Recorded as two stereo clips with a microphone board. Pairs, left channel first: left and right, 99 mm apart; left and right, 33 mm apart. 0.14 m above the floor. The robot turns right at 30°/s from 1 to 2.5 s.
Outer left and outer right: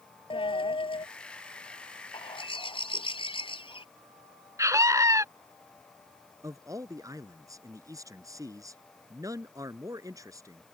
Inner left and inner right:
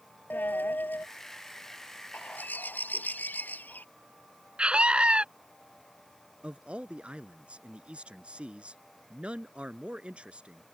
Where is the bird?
60° left (ahead or behind).